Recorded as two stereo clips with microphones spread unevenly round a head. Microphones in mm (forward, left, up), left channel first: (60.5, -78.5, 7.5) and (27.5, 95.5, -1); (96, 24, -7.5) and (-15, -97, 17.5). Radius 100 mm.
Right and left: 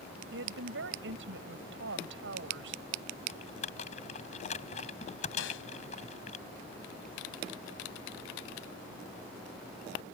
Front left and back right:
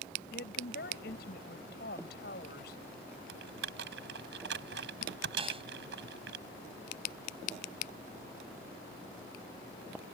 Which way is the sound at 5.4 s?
80° right.